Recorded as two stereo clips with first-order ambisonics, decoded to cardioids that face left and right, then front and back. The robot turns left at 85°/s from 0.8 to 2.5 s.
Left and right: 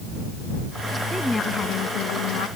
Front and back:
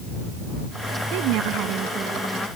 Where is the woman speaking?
170° right; by 2.5 s 75° left.